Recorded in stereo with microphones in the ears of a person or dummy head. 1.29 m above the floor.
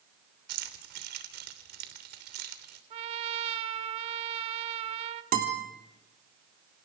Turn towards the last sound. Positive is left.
turn(degrees=-40)  # may be behind; listen again after turning